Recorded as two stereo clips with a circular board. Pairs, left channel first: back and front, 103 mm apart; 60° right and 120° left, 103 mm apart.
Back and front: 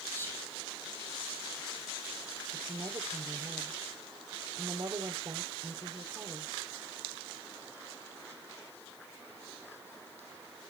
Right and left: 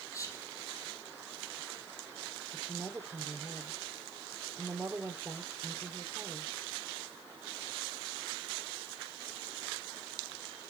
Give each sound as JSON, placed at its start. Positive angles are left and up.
{"t": 0.1, "sound": "whispering", "azimuth_deg": -115, "distance_m": 4.0}
{"t": 2.5, "sound": "a woman speaking", "azimuth_deg": 40, "distance_m": 3.0}